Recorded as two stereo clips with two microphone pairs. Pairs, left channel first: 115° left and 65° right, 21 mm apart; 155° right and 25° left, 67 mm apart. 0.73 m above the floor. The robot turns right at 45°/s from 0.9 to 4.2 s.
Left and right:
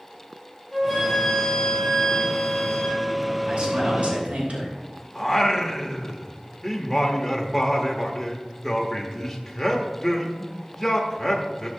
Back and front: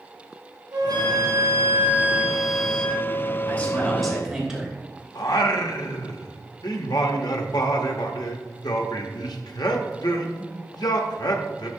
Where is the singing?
160° right, 1.1 m.